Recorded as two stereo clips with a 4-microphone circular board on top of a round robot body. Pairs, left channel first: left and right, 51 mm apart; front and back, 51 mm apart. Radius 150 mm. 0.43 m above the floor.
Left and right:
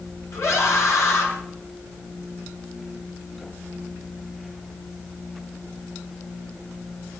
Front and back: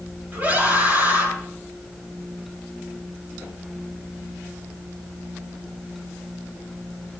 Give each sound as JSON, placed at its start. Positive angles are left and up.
{"t": 0.3, "sound": "a scream", "azimuth_deg": 120, "distance_m": 6.0}